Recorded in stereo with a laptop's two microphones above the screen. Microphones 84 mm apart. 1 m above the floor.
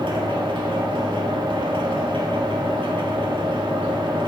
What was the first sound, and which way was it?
A machine running, 70° right (ahead or behind).